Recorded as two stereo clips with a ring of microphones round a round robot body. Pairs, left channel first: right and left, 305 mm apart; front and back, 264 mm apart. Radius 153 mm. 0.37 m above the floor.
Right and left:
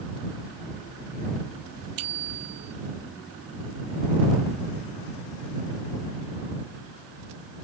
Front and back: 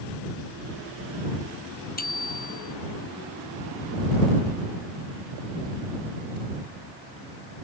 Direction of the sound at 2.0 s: 60° left.